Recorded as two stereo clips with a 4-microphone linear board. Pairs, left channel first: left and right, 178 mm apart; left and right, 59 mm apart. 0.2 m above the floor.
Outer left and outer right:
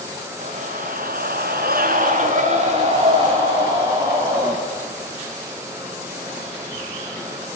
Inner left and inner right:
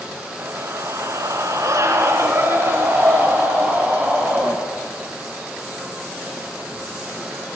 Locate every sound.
0.4 s a scream: 45° right (ahead or behind), 2.5 m; by 4.6 s 20° right (ahead or behind), 5 m